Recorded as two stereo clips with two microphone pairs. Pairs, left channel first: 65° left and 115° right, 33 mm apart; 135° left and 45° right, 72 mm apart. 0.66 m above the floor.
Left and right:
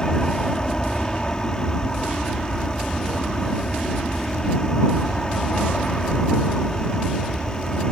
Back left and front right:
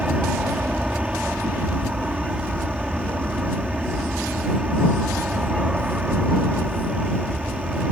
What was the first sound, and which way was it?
An aircraft, 15° left.